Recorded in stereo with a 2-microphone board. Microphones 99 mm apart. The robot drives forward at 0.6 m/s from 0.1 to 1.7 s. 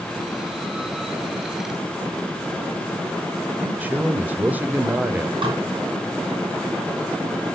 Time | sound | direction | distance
3.6 | a man speaking | 20° right (ahead or behind) | 1.0 m
5.4 | dishes clattering | 60° right (ahead or behind) | 2.5 m